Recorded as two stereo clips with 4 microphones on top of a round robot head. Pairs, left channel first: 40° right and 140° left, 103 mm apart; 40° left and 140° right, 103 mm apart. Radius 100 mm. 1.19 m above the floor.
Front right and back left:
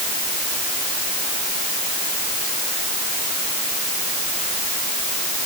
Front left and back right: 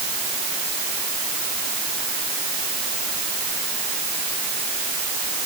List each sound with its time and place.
Only background noise.